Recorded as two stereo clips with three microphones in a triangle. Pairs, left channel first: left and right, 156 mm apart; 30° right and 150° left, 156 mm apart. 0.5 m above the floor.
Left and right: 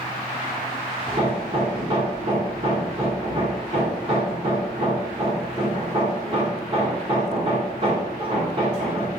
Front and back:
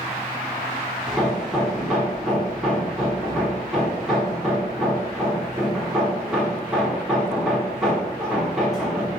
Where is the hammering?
120° right, 1.3 m.